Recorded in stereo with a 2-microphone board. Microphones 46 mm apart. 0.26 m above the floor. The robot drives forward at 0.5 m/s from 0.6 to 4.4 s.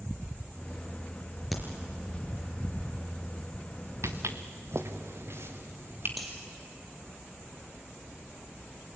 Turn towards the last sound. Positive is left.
turn(degrees=0)  # may be behind; listen again after turning